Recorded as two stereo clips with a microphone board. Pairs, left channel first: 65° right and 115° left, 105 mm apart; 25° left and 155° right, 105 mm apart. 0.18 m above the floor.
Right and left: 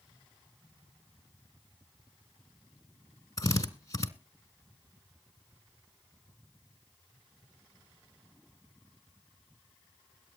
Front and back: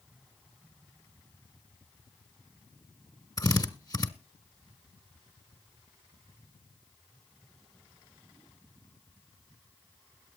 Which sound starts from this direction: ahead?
A drill, at 3.4 s.